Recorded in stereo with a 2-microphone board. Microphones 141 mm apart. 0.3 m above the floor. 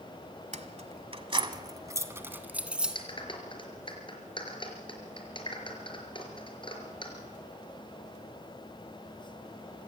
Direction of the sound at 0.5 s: 60° right (ahead or behind).